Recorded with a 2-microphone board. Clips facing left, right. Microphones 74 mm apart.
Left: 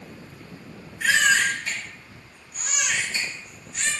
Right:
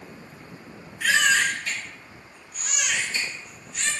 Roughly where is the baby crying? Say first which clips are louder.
Left 1 dB; left.